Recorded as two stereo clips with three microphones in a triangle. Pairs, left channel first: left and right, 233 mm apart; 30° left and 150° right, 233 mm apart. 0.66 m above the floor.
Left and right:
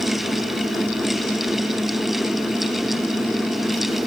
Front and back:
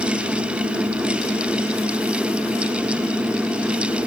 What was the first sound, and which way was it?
Only background noise.